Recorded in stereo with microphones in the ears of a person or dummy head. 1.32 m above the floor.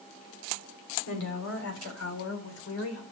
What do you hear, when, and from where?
1.1 s a woman speaking: 75° left (ahead or behind), 3.5 m; by 3.0 s 85° left, 4.5 m